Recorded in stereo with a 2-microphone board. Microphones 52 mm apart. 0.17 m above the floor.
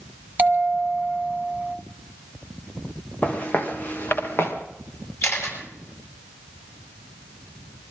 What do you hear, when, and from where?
0.4 s a bell: 35° right (ahead or behind), 1.3 m
3.2 s footsteps: 25° left (ahead or behind), 3 m; by 4.5 s 45° left (ahead or behind), 3 m
5.2 s a camera shutter: 60° left (ahead or behind), 7.5 m